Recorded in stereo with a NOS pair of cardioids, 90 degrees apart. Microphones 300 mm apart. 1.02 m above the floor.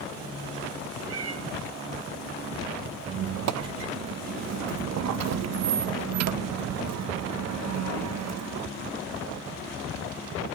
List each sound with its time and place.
1.1 s a cat meowing: 60° right, 3 m
3.1 s a squeak: 60° right, 0.7 m